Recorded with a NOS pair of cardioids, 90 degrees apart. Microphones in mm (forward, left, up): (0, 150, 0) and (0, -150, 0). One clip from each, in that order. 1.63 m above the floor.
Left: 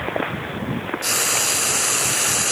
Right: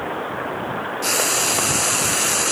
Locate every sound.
1.0 s frying: straight ahead, 1.0 m